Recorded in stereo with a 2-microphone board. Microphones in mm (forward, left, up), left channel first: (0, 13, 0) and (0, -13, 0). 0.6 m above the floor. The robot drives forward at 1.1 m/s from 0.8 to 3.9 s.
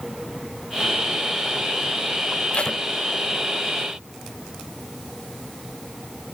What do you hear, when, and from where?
2.5 s tape being pulled: 50° left (ahead or behind)